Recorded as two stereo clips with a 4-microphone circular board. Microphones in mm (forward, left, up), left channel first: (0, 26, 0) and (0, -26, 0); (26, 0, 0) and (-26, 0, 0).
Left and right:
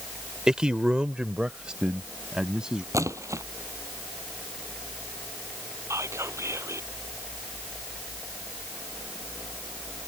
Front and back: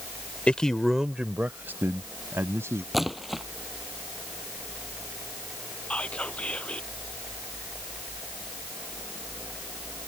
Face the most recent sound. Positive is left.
turn(degrees=-65)